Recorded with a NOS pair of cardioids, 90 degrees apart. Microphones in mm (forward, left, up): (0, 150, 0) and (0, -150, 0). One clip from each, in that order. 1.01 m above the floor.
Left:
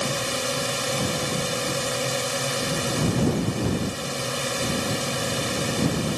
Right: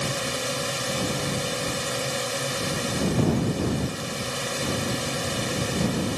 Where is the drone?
15° left.